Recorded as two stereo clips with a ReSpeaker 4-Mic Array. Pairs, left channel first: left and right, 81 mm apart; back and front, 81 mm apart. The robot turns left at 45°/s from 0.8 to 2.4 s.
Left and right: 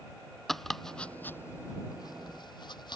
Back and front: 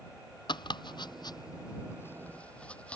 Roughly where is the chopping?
Behind.